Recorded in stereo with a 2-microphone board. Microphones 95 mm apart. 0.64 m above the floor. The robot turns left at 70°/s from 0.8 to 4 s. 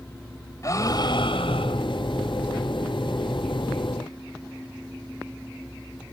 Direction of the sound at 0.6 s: 145° left.